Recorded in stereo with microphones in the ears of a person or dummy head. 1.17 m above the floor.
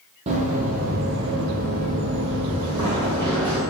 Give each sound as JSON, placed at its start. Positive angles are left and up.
{"t": 0.3, "sound": "running footsteps", "side_deg": -35, "distance_m": 2.0}